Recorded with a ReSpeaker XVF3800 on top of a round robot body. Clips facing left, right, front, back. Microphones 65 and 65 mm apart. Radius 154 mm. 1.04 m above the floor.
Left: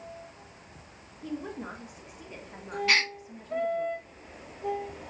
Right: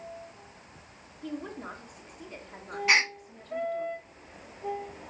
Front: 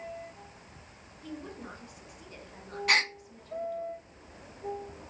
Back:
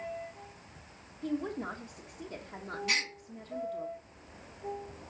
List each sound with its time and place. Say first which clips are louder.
1.2 s a woman speaking: left 1 dB, back 8 dB; 170° left, 1.5 m
2.9 s a gasp: right 2 dB, front 8 dB; 25° right, 0.6 m